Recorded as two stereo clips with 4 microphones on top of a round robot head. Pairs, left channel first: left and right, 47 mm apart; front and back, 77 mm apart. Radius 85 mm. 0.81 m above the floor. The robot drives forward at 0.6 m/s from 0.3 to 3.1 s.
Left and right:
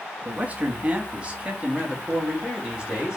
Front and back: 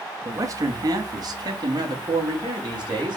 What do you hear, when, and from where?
0.2 s a man speaking: 145° right, 1.1 m; by 3.2 s 165° right, 2.5 m